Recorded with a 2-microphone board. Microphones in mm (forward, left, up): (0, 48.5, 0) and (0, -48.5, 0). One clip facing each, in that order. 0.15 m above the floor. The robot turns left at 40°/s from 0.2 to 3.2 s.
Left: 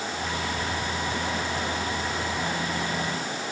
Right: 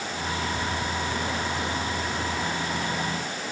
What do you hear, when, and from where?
Only background noise.